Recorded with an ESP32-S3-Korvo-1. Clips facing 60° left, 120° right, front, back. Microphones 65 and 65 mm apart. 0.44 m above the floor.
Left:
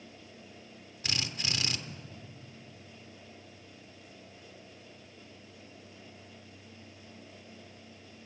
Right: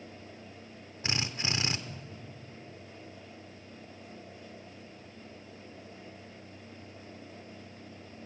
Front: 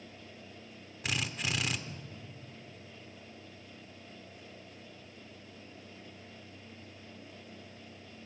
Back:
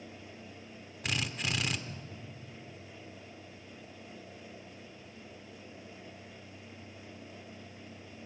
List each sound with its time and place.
1.0 s a drill: 85° right, 1.0 m